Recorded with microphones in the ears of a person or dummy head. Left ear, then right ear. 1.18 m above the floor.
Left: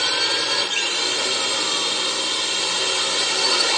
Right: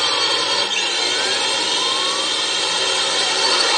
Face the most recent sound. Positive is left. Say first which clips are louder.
# right 2 dB
turn(degrees=-15)  # may be behind; listen again after turning